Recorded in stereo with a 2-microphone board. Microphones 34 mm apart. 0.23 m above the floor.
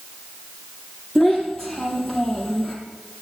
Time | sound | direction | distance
1.1 | a child speaking | 5° left (ahead or behind) | 4.5 m